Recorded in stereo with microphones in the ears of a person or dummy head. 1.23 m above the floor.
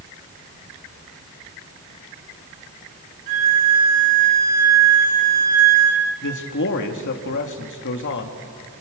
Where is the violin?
75° right (ahead or behind), 4 m.